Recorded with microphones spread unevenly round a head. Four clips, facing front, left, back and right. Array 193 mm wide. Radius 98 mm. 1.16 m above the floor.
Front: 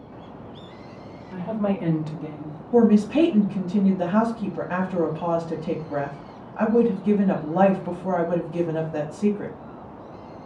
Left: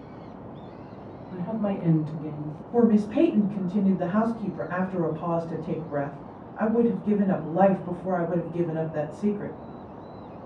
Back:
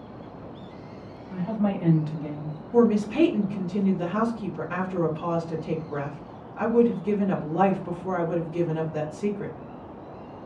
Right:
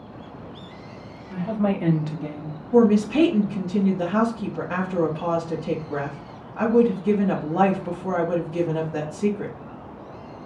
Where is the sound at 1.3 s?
65° right, 1.6 m; by 2.6 s 90° right, 1.2 m.